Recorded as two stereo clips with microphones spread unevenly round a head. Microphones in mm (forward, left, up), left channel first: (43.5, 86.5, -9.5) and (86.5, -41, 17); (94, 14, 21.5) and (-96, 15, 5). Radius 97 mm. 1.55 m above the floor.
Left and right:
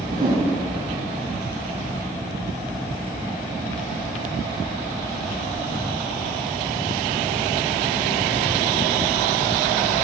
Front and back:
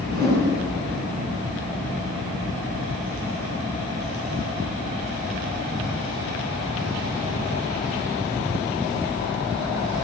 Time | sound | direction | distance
0.1 | a whoosh | 135° right | 8.5 m